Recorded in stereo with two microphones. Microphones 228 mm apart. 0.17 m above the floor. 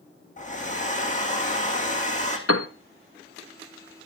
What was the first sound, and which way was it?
A hair dryer, 35° left (ahead or behind).